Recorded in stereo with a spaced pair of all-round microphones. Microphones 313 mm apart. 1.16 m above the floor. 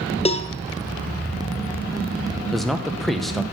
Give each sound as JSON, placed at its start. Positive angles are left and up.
{"t": 0.2, "sound": "a cowbell", "side_deg": 20, "distance_m": 0.7}
{"t": 2.5, "sound": "a man speaking", "side_deg": 0, "distance_m": 1.0}